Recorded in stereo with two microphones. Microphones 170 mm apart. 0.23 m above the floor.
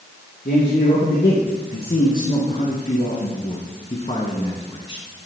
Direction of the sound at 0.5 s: 70° left (ahead or behind).